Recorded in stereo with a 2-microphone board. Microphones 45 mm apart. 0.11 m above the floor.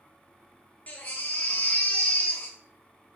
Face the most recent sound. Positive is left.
turn(degrees=45)  # may be behind; listen again after turning